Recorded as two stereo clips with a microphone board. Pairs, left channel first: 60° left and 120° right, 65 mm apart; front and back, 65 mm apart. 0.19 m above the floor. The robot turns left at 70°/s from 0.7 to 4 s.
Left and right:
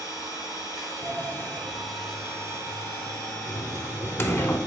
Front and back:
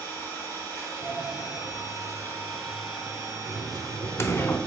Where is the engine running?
50° left, 2.5 m; by 4.7 s straight behind, 2.5 m.